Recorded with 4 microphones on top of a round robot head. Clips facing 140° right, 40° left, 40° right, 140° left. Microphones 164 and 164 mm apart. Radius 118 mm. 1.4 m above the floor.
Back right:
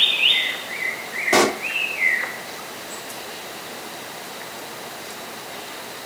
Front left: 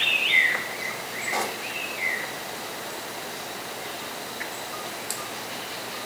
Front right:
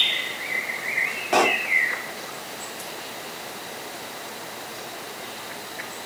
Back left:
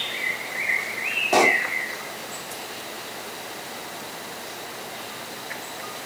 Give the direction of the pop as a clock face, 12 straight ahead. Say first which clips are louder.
Back right 13 dB, back left 1 dB; 5 o'clock.